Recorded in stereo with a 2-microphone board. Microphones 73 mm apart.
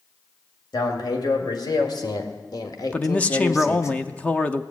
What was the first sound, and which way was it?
A man speaking, 70° left (ahead or behind).